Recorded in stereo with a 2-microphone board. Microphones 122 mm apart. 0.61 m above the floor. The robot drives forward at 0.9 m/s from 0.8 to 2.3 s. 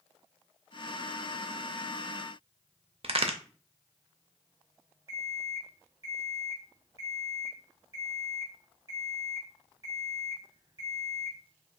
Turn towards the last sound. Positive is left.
turn(degrees=-30)  # may be behind; listen again after turning